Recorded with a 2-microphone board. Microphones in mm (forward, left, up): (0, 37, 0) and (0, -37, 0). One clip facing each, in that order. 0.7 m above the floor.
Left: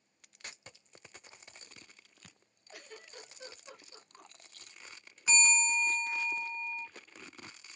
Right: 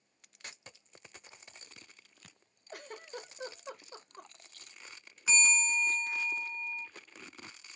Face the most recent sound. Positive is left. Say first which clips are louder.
# even
turn(degrees=0)  # may be behind; listen again after turning